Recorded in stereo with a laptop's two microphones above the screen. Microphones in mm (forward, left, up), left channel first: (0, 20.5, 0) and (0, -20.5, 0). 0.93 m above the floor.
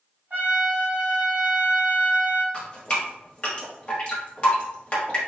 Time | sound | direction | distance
0.3 | a trumpet | 55° right (ahead or behind) | 1.6 m
2.5 | dripping | 25° left (ahead or behind) | 1.1 m